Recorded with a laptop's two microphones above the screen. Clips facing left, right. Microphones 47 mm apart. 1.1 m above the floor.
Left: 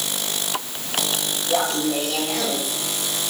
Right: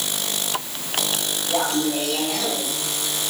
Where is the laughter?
35° left (ahead or behind), 4 m.